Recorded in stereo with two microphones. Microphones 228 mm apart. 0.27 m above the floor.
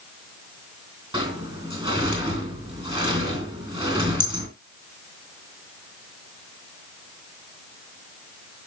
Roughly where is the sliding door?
Right.